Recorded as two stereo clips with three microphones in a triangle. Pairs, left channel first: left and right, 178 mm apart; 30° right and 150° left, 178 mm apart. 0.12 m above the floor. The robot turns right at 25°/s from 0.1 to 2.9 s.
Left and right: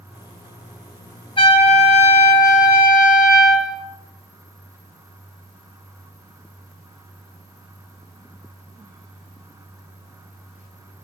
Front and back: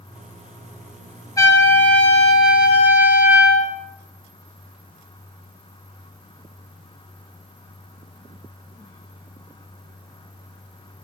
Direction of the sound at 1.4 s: 35° left.